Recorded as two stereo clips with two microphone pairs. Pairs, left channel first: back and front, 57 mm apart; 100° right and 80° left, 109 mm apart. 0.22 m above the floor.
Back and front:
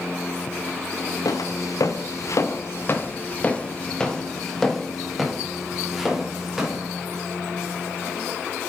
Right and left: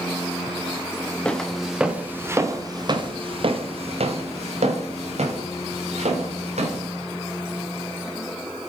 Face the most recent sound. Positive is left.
turn(degrees=80)